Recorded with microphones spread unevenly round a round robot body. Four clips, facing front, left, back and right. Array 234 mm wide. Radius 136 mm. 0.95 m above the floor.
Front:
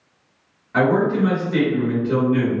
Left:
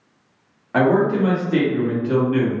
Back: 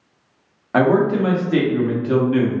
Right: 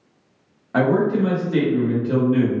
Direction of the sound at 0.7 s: 145° left.